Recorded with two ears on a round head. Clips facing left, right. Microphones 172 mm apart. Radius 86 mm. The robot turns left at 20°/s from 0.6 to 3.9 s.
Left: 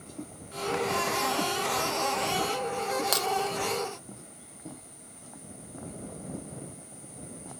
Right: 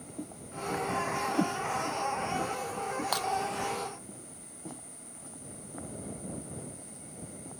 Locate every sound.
1.3 s a whoosh: 25° right (ahead or behind); by 1.6 s 30° right (ahead or behind)
3.1 s breaking glass: 35° left (ahead or behind); by 3.3 s 30° left (ahead or behind)